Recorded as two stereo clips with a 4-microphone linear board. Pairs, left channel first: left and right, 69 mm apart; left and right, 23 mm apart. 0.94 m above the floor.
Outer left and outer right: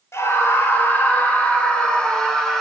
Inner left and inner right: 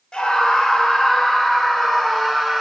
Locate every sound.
0.1 s a scream: 40° left (ahead or behind), 4 m; by 2.6 s 5° left (ahead or behind), 5 m